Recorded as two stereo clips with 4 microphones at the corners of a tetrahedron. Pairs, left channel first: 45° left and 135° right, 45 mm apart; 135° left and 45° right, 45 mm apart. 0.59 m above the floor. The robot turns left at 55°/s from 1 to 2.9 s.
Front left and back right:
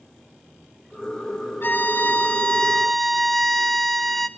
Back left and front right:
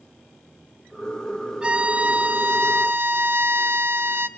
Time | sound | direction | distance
1.6 | a violin | 25° left | 1.1 m